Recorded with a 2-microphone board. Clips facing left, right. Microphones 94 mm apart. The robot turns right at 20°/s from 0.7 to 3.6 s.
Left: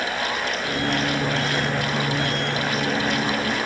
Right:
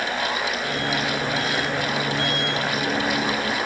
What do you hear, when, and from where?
Only background noise.